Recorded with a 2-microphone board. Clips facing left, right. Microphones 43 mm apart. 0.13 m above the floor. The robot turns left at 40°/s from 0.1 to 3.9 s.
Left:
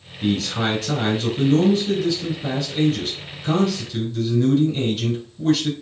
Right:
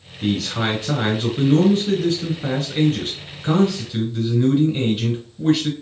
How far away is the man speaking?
About 1.4 m.